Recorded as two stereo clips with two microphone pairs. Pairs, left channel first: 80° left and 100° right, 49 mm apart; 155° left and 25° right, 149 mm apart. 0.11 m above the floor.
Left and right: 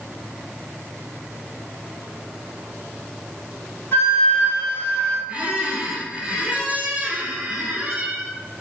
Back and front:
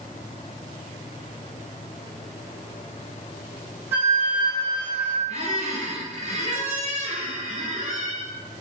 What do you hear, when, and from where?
3.9 s a flute: 50° left, 1.0 m
5.3 s a squeak: 35° right, 0.9 m